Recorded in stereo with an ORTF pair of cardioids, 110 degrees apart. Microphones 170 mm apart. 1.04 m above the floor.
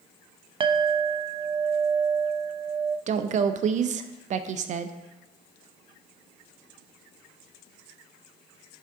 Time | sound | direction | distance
0.6 | a clink | 30° right | 0.6 m
3.1 | a woman speaking | 45° right | 0.6 m